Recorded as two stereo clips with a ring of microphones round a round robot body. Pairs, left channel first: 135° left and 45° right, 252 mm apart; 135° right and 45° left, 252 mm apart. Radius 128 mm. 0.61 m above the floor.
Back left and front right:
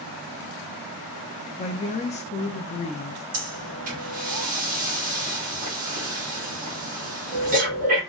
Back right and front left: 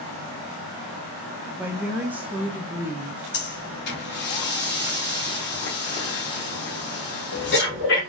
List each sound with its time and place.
1.6 s a woman speaking: 120° left, 0.6 m
3.3 s breathing: 100° right, 1.3 m